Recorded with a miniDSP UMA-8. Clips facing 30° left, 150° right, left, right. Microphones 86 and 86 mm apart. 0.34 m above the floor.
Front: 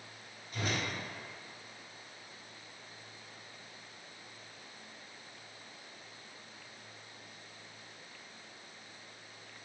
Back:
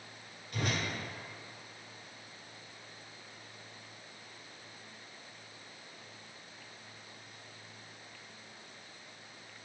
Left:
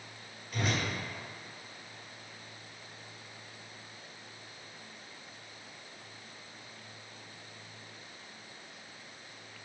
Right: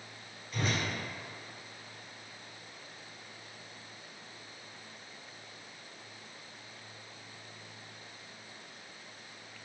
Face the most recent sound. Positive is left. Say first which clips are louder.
# back 1 dB, left 1 dB
turn(degrees=175)